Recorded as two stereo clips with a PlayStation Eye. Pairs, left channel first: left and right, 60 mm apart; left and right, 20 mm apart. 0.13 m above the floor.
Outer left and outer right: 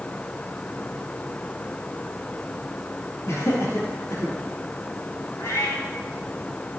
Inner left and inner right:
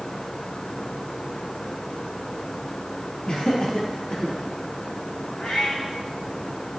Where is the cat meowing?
65° left (ahead or behind), 4 m.